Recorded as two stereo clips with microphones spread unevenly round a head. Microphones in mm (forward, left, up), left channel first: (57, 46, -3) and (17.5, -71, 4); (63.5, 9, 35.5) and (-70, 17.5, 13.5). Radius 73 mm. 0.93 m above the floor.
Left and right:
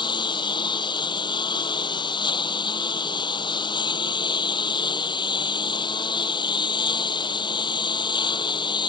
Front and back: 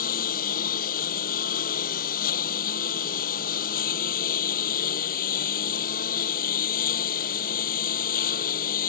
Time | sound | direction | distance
0.0 | a lawn mower | 15° left | ?